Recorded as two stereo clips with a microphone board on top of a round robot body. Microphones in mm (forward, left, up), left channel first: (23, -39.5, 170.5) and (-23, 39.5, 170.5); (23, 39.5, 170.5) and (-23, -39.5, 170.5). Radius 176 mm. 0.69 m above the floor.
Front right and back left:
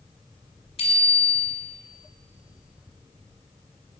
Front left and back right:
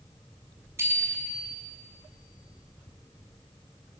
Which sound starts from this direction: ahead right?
A bicycle bell, at 0.8 s.